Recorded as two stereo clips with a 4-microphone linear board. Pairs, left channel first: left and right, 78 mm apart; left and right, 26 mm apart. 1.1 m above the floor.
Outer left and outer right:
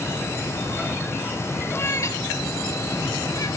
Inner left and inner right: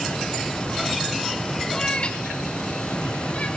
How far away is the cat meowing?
About 0.8 m.